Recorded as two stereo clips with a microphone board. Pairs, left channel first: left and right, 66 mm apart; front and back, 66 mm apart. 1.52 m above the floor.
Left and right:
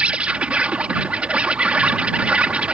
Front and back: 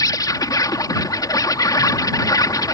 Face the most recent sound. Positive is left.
turn(degrees=-20)